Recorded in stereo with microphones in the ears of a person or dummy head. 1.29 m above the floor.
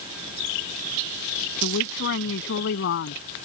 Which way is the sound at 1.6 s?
65° left (ahead or behind).